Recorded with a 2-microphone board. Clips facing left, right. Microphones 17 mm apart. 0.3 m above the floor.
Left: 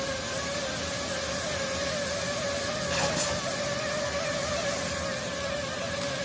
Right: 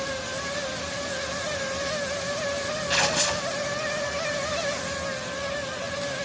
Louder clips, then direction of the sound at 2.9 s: Right 6 dB; 35° right (ahead or behind).